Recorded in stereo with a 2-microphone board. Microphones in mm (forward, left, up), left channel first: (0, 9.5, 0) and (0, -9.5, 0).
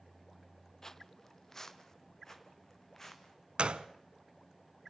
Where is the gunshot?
85° right, 0.7 m.